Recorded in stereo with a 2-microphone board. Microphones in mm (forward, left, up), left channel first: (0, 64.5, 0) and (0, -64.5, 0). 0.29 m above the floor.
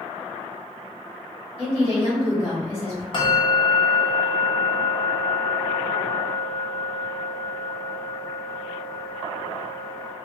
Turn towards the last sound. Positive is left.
turn(degrees=40)  # may be behind; listen again after turning